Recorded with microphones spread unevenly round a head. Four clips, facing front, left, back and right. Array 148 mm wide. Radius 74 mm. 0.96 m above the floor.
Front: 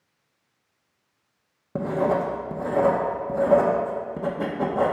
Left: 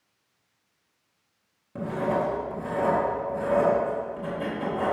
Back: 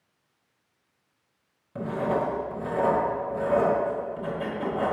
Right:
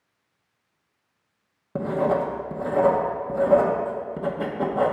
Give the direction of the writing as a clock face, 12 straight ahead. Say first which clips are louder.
Right 4 dB, front 4 dB; 1 o'clock.